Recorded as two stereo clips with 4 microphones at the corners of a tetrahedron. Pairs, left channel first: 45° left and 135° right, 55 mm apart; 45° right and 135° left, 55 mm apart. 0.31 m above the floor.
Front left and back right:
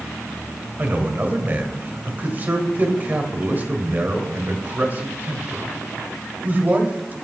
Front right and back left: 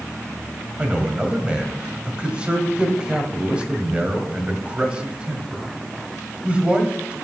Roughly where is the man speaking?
Behind.